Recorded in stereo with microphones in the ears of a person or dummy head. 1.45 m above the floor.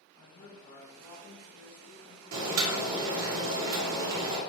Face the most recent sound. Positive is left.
turn(degrees=-75)  # may be behind; listen again after turning